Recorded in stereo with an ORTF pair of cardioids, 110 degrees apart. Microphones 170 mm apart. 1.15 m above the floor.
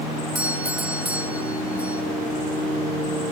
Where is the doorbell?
10° right, 3.5 m.